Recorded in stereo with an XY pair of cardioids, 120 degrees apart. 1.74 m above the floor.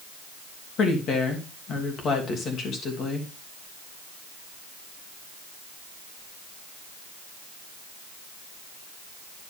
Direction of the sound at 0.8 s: 55° left.